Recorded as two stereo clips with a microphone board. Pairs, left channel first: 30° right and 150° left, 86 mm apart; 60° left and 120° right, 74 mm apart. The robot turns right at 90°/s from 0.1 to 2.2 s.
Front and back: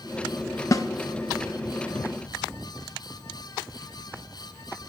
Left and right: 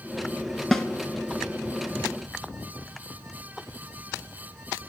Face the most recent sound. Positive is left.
turn(degrees=105)